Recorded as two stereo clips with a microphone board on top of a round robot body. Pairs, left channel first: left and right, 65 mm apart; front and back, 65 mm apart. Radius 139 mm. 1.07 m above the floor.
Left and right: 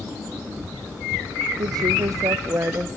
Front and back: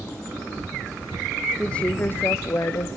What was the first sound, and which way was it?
A woman speaking, 80° right.